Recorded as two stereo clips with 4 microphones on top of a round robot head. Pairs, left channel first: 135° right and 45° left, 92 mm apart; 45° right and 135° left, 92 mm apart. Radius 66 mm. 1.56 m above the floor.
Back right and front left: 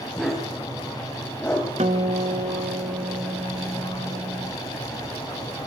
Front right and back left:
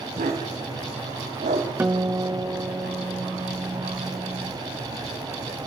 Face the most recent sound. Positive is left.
turn(degrees=70)